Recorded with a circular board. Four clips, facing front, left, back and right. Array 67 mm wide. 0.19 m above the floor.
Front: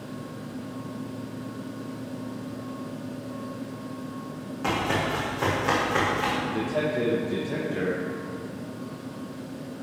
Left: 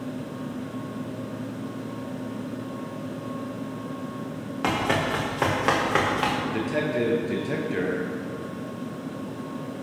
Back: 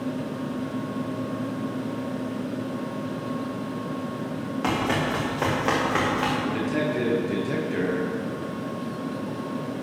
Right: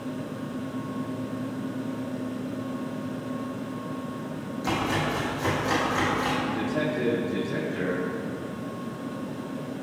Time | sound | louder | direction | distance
4.6 | running footsteps | left 3 dB, back 1 dB | 110° left | 5 m
6.4 | a man speaking | left 1 dB, back 2 dB | 120° left | 4 m